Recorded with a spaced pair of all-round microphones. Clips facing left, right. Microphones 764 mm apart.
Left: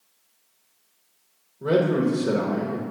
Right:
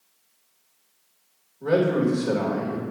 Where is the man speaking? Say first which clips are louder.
Even; 45° left (ahead or behind), 1.0 m.